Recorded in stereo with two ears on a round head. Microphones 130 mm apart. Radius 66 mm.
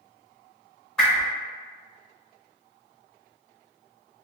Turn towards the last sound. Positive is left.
turn(degrees=10)  # may be behind; listen again after turning